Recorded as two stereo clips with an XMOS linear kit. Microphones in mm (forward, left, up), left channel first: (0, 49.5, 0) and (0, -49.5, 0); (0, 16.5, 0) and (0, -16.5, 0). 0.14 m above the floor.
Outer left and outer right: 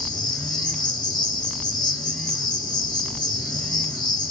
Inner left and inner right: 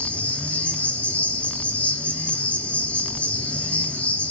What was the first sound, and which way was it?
An insect, 45° left (ahead or behind).